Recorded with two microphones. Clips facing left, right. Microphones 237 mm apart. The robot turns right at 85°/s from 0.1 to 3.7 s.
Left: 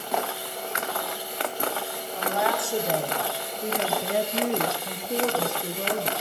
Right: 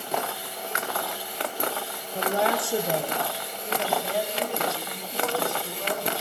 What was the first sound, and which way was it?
A woman speaking, 60° right.